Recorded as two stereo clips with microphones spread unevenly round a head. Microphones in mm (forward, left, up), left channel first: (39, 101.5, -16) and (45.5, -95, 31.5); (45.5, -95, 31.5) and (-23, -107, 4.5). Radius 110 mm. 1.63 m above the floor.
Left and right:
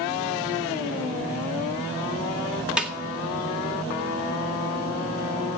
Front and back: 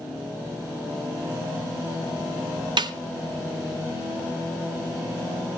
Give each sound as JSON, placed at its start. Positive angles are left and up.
{"t": 2.8, "sound": "a snare drum", "azimuth_deg": -165, "distance_m": 1.8}